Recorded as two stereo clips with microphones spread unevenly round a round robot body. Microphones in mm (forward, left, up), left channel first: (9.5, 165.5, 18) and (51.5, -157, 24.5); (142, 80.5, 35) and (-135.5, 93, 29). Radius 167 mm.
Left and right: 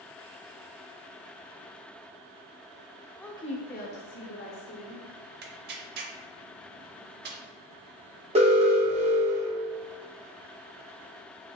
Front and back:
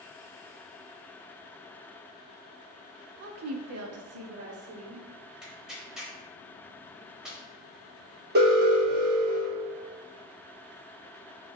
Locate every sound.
3.2 s a woman speaking: 175° right, 0.5 m; by 5.0 s 145° left, 1.8 m
5.4 s tearing paper: 95° right, 0.5 m
8.3 s an alarm: 145° right, 1.1 m